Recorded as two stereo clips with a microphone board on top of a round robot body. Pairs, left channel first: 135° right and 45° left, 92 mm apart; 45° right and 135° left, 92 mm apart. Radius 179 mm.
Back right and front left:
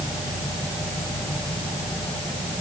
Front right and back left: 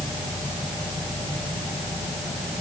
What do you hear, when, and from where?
Only background noise.